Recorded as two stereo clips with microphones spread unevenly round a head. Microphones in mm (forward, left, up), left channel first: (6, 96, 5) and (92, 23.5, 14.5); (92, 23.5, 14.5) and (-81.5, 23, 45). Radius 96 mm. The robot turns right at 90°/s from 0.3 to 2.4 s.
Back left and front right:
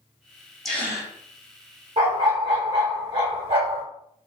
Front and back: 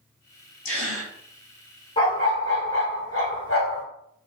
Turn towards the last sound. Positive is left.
turn(degrees=-30)